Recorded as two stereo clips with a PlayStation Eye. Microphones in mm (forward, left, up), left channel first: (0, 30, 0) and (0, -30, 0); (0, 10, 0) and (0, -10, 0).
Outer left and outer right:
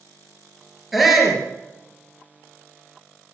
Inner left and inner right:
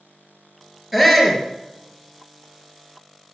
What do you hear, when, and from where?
0.9 s a shout: centre (ahead or behind), 3.5 m